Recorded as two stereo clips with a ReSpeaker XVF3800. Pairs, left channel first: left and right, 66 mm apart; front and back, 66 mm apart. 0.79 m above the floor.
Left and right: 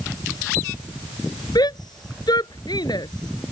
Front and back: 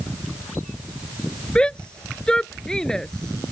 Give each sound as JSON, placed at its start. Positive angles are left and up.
{"t": 1.6, "sound": "a shout", "azimuth_deg": 75}